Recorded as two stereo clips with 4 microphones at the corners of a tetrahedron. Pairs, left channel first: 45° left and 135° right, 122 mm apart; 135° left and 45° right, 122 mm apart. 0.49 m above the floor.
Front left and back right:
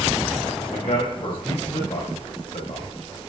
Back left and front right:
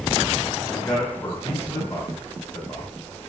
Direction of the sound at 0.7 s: 60° left.